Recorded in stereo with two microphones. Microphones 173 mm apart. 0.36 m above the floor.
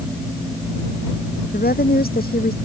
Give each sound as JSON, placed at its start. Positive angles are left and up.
{"t": 1.5, "sound": "a woman speaking", "side_deg": 60}